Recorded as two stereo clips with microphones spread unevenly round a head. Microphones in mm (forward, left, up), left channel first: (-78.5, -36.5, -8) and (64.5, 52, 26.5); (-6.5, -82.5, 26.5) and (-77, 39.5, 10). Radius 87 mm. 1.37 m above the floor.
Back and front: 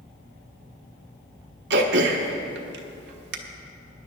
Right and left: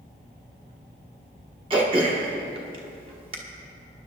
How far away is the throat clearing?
About 1.2 m.